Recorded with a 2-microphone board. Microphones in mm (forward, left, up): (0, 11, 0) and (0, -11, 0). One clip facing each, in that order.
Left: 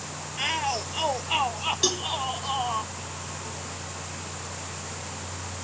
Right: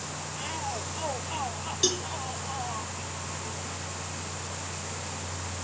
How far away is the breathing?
No breathing in this recording.